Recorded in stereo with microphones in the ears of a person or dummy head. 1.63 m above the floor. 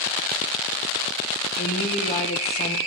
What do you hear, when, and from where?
1.6 s a woman speaking: 35° left (ahead or behind), 1.4 m